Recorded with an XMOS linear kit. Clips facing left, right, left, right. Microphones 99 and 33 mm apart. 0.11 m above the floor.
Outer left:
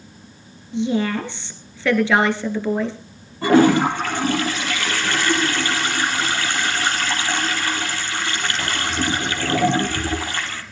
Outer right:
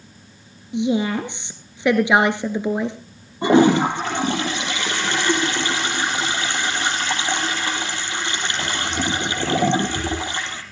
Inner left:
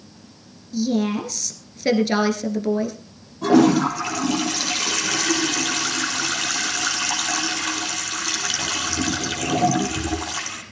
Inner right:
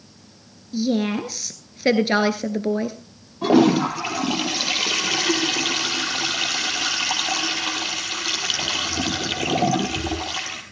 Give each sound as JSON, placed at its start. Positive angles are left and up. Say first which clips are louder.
{"t": 0.7, "sound": "a woman speaking", "louder": "outer right 1 dB, even", "side_deg": -20, "distance_m": 1.5}
{"t": 3.4, "sound": "a toilet flushing", "louder": "even, inner left 1 dB", "side_deg": -20, "distance_m": 3.5}